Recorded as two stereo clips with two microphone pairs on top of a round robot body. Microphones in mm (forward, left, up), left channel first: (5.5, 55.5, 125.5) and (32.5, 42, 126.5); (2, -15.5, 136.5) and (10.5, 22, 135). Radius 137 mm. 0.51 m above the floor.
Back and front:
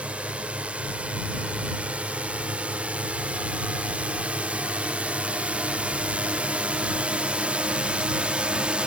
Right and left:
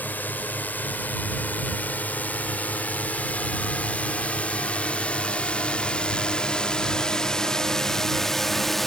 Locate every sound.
0.0 s a drone: 75° right; by 8.9 s 20° right